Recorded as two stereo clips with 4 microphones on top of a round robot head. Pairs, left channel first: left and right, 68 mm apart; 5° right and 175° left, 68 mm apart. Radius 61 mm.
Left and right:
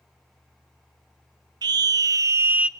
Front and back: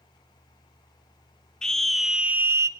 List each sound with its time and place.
1.6 s a scream: 90° right, 1.7 m; by 2.7 s 160° right, 1.0 m